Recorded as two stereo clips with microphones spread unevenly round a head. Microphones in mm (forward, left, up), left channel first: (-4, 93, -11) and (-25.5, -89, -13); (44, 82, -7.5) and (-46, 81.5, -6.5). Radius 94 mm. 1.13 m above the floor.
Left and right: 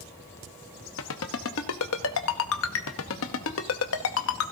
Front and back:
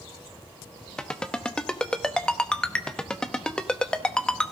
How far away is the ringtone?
About 1.0 m.